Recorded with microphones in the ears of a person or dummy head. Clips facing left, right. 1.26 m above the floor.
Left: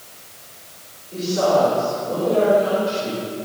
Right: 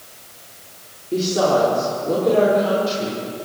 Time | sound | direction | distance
1.1 | a woman speaking | 60° right (ahead or behind) | 4 m